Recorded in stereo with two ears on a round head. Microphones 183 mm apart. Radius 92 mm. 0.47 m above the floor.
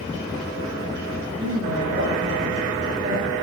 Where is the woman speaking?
60° right (ahead or behind), 6.5 m; by 3.4 s 75° right (ahead or behind), 7 m.